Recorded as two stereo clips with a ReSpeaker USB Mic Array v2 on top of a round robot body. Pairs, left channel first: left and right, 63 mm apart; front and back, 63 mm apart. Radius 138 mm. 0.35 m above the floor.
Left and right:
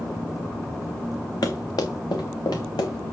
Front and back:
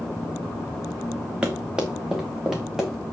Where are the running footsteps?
105° left, 1.7 m; by 3.1 s 95° left, 2.5 m.